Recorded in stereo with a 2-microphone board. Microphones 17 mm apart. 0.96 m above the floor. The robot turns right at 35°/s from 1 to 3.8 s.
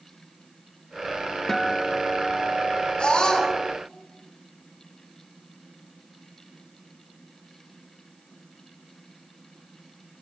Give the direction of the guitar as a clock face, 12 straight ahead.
7 o'clock.